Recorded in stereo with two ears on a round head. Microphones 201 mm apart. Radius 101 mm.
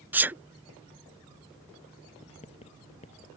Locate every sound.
0.1 s a sneeze: 10° right (ahead or behind)
2.2 s writing: 30° left (ahead or behind)